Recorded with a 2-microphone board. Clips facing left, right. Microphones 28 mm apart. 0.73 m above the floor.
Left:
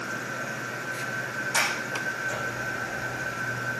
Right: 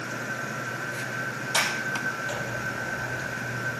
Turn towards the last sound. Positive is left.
turn(degrees=-50)  # may be behind; listen again after turning